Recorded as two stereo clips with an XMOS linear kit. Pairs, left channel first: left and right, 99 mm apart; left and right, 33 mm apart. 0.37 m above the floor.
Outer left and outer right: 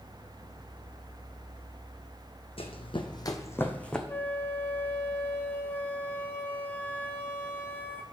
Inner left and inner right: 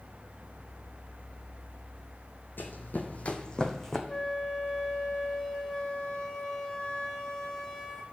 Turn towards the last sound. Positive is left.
turn(degrees=20)  # may be behind; listen again after turning